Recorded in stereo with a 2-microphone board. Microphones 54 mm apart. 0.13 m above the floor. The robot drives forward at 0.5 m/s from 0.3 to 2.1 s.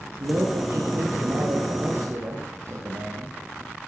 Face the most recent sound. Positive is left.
turn(degrees=-65)  # may be behind; listen again after turning